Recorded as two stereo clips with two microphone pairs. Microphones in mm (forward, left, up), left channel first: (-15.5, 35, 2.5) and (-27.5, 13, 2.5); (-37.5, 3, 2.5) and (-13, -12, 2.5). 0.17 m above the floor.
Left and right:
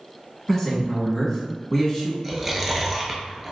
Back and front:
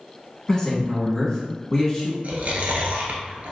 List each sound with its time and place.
0.5 s a man speaking: 110° left, 1.1 m
2.2 s chewing: 35° right, 0.7 m